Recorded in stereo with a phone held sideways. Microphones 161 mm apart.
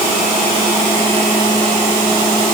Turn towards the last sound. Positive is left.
No sound to turn to.